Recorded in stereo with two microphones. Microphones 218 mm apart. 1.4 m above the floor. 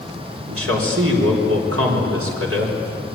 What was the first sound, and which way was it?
A man speaking, 85° right.